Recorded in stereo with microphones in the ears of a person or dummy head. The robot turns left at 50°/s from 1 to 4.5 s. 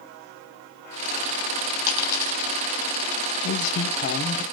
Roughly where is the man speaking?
Left.